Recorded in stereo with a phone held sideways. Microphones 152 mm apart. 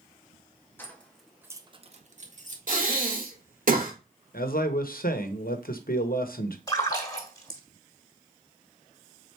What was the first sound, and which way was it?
Keys jangling, 15° left (ahead or behind).